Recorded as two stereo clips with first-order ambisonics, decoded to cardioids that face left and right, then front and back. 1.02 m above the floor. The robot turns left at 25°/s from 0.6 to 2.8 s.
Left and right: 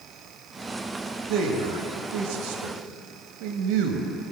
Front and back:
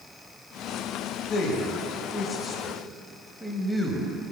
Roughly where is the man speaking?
Ahead right.